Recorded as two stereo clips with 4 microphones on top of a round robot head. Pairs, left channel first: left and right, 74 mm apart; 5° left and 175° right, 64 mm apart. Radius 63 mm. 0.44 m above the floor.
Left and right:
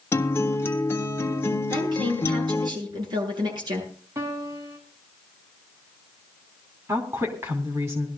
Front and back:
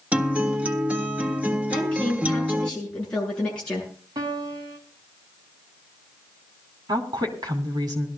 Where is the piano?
145° right, 3 m.